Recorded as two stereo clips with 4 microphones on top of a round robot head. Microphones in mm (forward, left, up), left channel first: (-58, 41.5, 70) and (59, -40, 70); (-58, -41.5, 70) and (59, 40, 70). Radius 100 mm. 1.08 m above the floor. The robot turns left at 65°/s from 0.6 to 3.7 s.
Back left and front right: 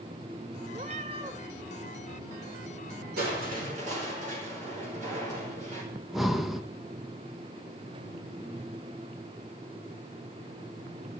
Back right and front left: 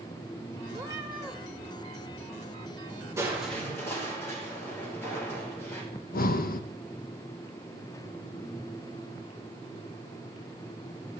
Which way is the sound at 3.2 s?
35° right.